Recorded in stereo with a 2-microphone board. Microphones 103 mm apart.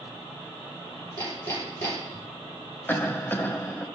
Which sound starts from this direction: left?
Hammering, at 1.2 s.